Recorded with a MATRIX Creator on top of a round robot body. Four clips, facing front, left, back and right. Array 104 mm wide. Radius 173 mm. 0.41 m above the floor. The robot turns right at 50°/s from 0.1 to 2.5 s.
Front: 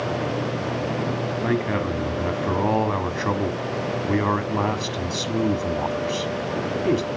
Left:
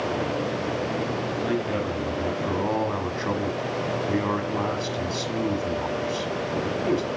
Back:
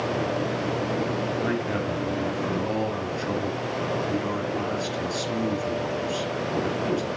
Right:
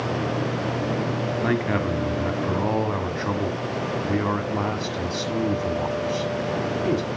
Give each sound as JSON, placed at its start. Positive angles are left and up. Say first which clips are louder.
{"t": 1.4, "sound": "a man speaking", "louder": "right 3 dB, front 3 dB", "azimuth_deg": -70, "distance_m": 1.5}